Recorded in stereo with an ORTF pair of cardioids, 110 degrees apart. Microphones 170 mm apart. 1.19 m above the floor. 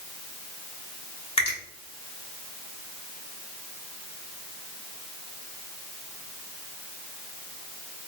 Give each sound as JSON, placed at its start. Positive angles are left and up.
{"t": 1.4, "sound": "a finger snap", "azimuth_deg": 35, "distance_m": 1.3}